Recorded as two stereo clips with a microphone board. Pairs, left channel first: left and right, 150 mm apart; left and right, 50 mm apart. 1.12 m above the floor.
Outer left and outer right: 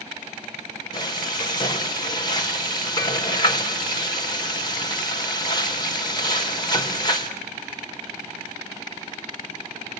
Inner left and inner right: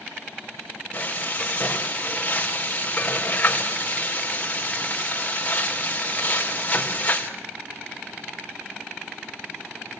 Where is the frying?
30° left (ahead or behind), 3.5 m.